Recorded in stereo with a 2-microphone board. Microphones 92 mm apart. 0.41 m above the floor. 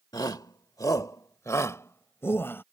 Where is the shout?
45° left (ahead or behind); by 2.6 s 25° left (ahead or behind).